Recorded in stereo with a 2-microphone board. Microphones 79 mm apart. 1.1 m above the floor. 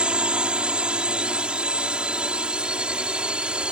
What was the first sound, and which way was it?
A drone, 15° right (ahead or behind).